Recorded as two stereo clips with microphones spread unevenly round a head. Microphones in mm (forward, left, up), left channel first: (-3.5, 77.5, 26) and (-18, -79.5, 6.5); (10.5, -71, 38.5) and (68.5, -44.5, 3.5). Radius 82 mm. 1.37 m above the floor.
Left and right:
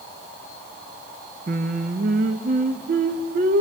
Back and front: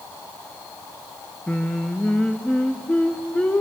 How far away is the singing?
About 0.8 m.